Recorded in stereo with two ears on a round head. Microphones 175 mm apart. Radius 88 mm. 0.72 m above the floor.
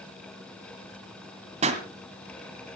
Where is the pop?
35° right (ahead or behind), 2 m.